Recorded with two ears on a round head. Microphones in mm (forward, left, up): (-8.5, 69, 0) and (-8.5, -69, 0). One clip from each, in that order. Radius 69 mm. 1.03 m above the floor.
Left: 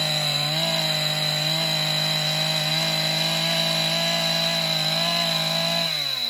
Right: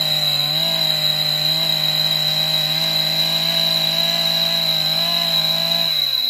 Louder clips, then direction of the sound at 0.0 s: Right 5 dB; 60° right (ahead or behind).